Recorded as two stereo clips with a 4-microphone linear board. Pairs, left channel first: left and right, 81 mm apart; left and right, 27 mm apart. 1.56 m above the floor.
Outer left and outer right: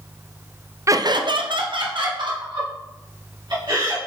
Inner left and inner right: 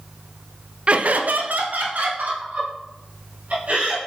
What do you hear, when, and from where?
0.9 s laughter: 40° right (ahead or behind), 0.5 m; by 4.0 s 70° right (ahead or behind), 3.5 m